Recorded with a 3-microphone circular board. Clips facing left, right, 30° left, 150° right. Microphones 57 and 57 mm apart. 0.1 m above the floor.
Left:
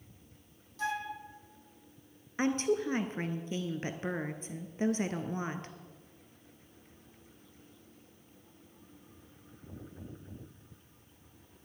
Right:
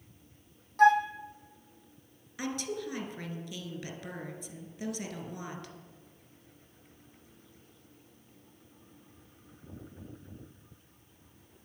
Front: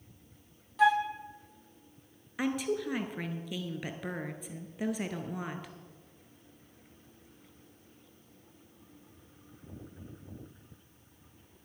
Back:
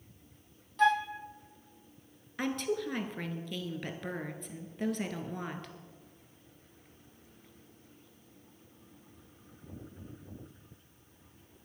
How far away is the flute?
About 0.8 m.